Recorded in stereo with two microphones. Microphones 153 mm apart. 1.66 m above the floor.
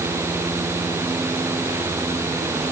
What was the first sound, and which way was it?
Only background noise.